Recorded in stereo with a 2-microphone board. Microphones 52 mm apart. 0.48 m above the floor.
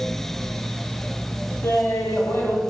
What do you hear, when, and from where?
1.6 s laughter: 50° left (ahead or behind), 2 m